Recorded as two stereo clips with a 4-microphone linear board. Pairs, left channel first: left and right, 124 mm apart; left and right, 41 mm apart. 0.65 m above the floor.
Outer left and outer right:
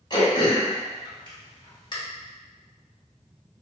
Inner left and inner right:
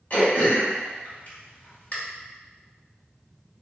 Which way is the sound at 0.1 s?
40° left (ahead or behind).